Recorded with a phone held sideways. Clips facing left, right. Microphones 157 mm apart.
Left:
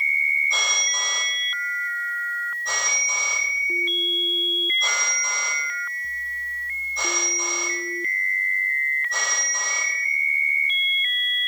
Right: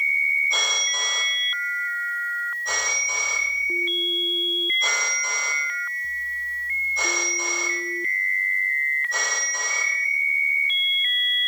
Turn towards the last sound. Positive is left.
turn(degrees=0)  # may be behind; listen again after turning